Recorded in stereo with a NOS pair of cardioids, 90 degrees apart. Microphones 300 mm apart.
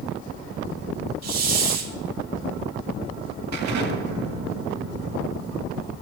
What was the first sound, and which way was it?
A hiss, 55° right.